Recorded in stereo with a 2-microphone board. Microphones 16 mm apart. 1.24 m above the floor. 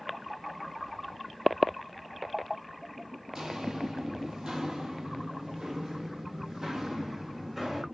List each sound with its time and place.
3.3 s footsteps: 60° right (ahead or behind), 2.5 m; by 7.8 s 30° right (ahead or behind), 3.5 m